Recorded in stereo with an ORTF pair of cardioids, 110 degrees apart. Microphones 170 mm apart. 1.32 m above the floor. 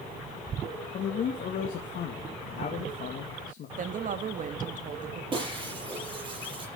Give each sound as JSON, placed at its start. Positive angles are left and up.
{"t": 0.9, "sound": "a man speaking", "azimuth_deg": 55, "distance_m": 2.5}
{"t": 3.8, "sound": "a woman speaking", "azimuth_deg": -50, "distance_m": 1.5}
{"t": 5.3, "sound": "breaking glass", "azimuth_deg": -30, "distance_m": 6.5}